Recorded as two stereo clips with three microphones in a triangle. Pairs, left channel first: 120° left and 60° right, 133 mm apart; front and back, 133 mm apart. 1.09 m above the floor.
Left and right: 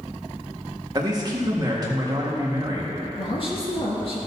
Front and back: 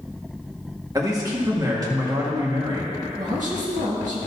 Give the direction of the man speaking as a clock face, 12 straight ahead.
4 o'clock.